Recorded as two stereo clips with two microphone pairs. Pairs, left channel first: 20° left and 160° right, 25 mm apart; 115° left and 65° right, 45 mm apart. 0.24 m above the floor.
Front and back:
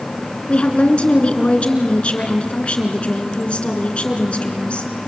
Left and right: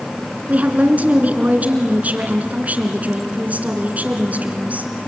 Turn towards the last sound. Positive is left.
turn(degrees=-20)